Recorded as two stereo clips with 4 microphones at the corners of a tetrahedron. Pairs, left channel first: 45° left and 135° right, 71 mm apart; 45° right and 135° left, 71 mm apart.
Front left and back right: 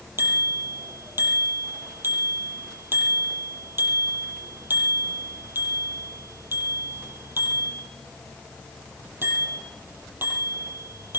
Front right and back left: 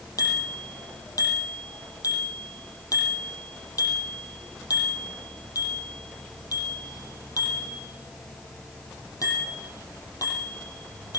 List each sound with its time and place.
0.2 s a bicycle bell: 80° right, 6.5 m